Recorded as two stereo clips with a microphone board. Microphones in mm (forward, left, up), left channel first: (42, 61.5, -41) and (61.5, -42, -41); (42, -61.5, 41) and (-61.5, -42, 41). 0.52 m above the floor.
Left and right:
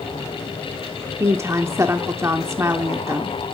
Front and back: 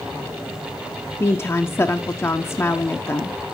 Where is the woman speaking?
55° right, 0.7 m.